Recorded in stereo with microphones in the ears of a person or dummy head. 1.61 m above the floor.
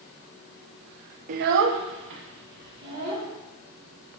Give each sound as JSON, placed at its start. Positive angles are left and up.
{"t": 1.3, "sound": "a child speaking", "side_deg": -45, "distance_m": 0.7}